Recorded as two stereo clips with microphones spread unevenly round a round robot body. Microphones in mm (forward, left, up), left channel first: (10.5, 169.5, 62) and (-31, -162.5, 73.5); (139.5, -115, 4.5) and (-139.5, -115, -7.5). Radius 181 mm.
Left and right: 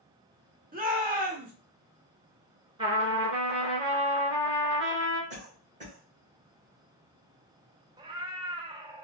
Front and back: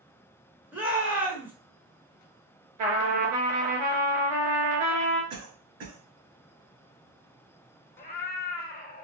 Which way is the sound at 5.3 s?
165° right.